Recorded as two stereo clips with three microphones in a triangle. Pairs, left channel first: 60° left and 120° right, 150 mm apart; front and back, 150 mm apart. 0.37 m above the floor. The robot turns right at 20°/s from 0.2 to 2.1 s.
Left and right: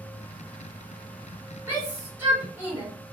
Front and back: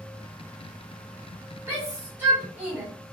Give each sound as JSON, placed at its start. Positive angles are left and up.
{"t": 1.7, "sound": "a shout", "azimuth_deg": -145, "distance_m": 1.5}